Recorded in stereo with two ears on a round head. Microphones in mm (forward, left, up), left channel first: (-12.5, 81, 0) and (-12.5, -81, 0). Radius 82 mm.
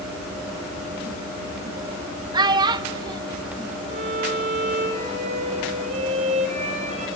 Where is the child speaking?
25° right (ahead or behind), 1.0 m.